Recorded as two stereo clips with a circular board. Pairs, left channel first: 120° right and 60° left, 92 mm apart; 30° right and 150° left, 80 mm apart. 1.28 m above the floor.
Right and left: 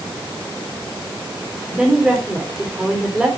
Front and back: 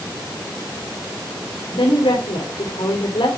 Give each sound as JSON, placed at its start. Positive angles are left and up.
{"t": 1.7, "sound": "a woman speaking", "azimuth_deg": -25, "distance_m": 3.5}